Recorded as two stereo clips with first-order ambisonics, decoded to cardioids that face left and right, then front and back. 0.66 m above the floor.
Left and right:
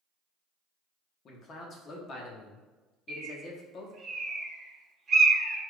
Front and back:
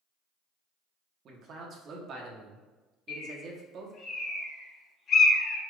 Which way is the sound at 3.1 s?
40° right.